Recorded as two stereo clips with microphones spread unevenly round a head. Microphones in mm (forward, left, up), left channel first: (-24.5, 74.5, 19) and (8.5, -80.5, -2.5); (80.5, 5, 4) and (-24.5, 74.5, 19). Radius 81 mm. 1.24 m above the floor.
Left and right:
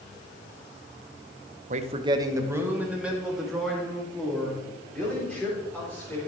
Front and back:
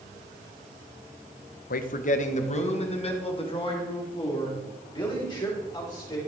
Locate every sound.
1.7 s a man speaking: 30° right, 0.8 m; by 6.2 s 20° left, 4.5 m